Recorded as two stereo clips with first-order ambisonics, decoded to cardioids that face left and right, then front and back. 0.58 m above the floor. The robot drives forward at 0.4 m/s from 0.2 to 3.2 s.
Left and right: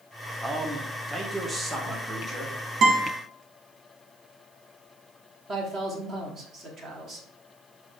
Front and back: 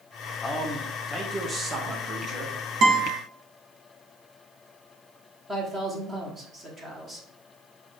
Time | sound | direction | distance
0.4 | a man speaking | 40° right | 0.7 m
2.8 | a guitar | 140° right | 1.0 m
5.5 | a man speaking | 125° right | 1.0 m